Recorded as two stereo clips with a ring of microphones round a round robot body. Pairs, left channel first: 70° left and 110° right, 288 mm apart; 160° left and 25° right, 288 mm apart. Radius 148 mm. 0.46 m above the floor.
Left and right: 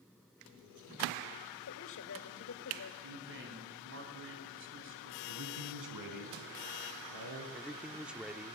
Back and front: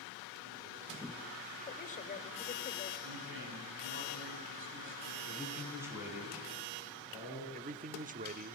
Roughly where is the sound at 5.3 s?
Right.